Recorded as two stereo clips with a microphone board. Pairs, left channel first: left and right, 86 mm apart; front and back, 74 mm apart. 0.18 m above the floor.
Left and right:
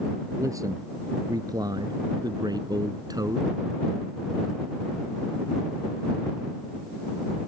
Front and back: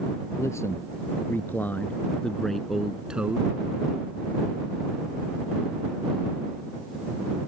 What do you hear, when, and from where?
0.4 s a man speaking: 45° right; by 3.5 s 120° right